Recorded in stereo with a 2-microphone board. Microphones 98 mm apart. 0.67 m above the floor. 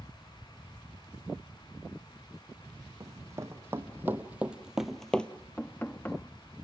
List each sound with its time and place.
3.0 s running footsteps: 35° right (ahead or behind), 1.7 m; by 5.3 s 10° left (ahead or behind), 0.8 m
5.6 s knocking: 20° left (ahead or behind), 0.6 m